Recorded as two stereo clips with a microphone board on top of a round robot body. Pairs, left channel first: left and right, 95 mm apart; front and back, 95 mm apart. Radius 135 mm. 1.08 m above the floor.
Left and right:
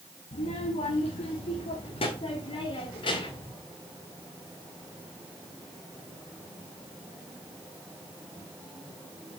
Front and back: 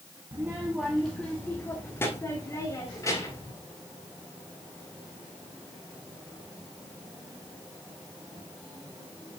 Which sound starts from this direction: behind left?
A child speaking, at 0.3 s.